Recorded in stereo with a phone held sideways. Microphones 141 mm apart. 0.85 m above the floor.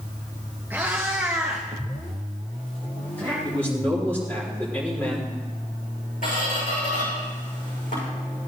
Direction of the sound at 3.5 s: 10° left (ahead or behind).